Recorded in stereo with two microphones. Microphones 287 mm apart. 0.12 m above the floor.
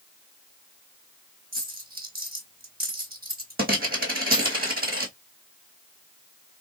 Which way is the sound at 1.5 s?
30° right (ahead or behind).